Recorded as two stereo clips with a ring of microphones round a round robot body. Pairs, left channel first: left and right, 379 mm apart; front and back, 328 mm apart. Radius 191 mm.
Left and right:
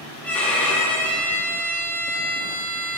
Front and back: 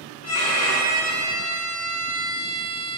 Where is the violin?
5° left, 1.1 m.